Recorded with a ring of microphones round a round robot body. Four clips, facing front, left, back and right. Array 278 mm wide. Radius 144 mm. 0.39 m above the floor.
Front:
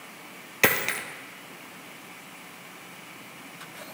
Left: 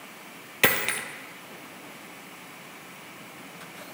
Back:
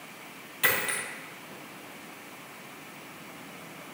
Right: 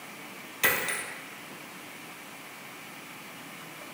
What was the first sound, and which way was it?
A dropped coin, 40° left.